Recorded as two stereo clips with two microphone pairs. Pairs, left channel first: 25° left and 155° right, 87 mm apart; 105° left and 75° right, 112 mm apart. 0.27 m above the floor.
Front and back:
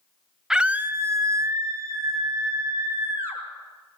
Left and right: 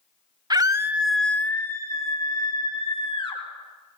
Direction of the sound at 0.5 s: 75° right.